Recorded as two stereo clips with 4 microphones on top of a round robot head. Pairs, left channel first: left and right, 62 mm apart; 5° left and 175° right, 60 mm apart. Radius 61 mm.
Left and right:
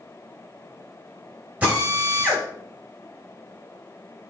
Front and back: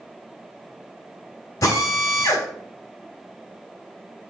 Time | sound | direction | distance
1.6 | a drill | 25° right | 3.5 m